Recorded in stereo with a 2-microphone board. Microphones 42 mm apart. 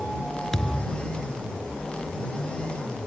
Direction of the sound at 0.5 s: 15° left (ahead or behind).